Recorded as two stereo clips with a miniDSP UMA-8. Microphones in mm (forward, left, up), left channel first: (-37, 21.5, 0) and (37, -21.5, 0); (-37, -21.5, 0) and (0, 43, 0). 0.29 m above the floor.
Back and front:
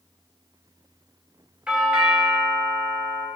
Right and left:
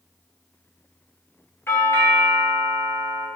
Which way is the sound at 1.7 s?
95° right.